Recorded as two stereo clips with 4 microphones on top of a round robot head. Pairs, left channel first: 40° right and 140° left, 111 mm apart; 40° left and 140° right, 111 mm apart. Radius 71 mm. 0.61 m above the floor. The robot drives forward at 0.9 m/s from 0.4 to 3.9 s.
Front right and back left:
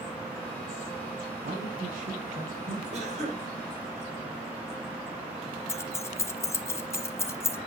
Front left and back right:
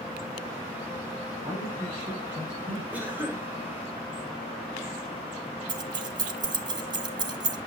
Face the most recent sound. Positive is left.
turn(degrees=-100)